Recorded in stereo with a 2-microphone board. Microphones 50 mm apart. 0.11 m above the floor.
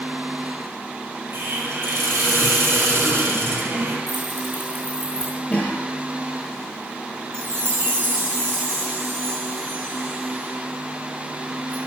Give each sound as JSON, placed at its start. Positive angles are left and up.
{"t": 1.3, "sound": "a hiss", "side_deg": -55, "distance_m": 2.5}
{"t": 4.1, "sound": "keys jangling", "side_deg": -55, "distance_m": 5.0}
{"t": 5.5, "sound": "a cough", "side_deg": 25, "distance_m": 3.0}
{"t": 7.3, "sound": "a chime", "side_deg": -55, "distance_m": 3.0}